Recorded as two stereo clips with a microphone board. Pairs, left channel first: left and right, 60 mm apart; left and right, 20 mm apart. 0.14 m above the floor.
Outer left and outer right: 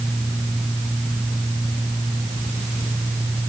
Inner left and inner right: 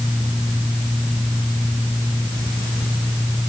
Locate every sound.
Only background noise.